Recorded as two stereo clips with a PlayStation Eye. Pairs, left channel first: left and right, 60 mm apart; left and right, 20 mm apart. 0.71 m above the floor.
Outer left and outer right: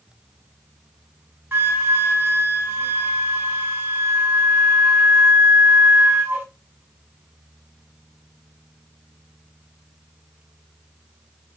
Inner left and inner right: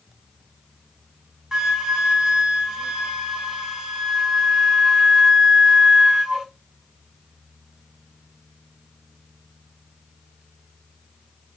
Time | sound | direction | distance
1.5 | a flute | 30° right (ahead or behind) | 1.2 m